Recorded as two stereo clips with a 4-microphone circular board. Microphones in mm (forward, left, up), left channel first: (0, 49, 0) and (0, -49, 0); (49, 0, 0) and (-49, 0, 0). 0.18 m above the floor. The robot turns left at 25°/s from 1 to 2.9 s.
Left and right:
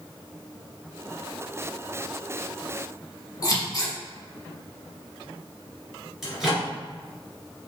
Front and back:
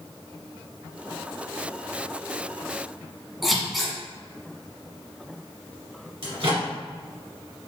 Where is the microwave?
Straight behind, 1.8 m.